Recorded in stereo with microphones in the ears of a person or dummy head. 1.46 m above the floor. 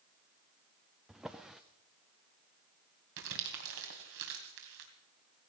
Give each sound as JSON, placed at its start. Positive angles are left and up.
{"t": 1.1, "sound": "a drawer", "side_deg": 0, "distance_m": 0.5}
{"t": 3.2, "sound": "crumpling", "side_deg": -60, "distance_m": 2.5}